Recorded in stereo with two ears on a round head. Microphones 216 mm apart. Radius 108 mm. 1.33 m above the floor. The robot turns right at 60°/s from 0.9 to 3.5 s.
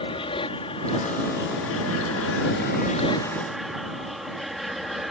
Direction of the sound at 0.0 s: 20° left (ahead or behind).